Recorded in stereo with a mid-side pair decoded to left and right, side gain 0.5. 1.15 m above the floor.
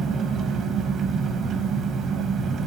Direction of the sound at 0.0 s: 60° right.